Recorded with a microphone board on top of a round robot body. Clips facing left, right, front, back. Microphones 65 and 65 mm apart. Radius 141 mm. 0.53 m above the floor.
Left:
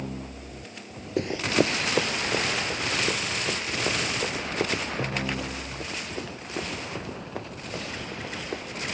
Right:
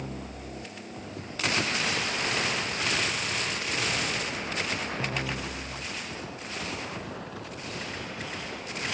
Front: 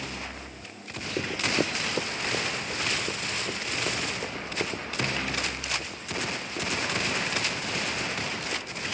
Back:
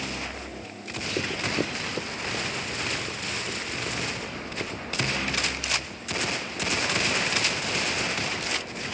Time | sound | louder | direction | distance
1.2 | running footsteps | left 7 dB, front 1 dB | 90° left | ?